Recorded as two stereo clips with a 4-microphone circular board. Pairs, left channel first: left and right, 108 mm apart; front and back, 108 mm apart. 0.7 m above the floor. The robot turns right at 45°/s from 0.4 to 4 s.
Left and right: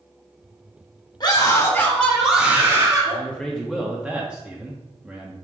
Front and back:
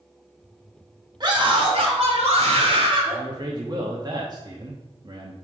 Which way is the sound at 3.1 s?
150° left.